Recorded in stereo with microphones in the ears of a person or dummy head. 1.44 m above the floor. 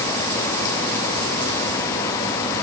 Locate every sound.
Only background noise.